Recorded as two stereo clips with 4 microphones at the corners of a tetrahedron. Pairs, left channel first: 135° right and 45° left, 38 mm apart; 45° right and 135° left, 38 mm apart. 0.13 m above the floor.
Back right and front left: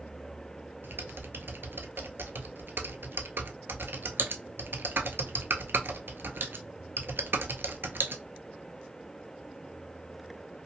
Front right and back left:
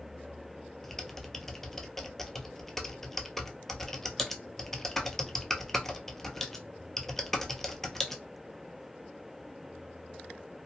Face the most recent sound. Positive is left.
turn(degrees=35)